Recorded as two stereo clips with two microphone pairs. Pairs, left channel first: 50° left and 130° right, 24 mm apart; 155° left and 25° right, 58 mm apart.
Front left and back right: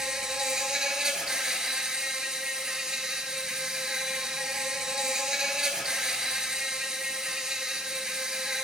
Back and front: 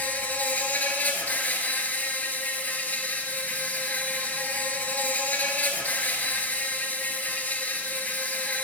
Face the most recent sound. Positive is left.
turn(degrees=-170)